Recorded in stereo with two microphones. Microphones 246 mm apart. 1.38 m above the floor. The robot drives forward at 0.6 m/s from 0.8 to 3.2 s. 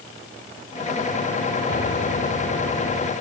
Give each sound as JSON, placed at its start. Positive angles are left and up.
{"t": 1.7, "sound": "a piano", "side_deg": 50}